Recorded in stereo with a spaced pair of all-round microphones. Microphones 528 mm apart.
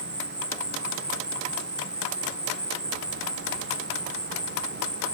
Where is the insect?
20° right (ahead or behind).